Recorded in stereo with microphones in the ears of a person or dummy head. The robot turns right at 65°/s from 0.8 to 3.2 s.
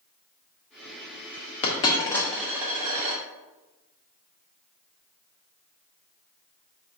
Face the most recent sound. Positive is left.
turn(degrees=-35)  # may be behind; listen again after turning